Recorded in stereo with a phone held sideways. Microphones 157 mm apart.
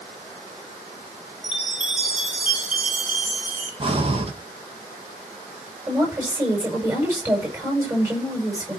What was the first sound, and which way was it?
A chime, 10° right (ahead or behind).